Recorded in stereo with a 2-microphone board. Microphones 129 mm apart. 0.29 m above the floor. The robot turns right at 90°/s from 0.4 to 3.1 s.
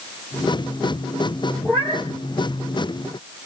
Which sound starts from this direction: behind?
A cat meowing, at 1.6 s.